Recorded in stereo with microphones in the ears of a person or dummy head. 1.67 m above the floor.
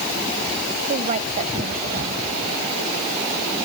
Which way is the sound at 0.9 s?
40° right (ahead or behind).